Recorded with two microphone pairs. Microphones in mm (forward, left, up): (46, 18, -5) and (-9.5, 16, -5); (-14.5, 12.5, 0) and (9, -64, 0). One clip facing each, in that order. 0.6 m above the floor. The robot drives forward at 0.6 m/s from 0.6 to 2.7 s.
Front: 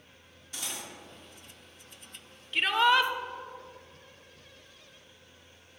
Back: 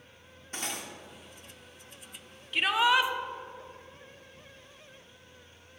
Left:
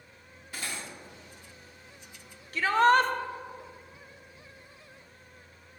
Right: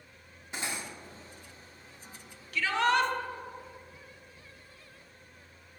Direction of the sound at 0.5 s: 135° right.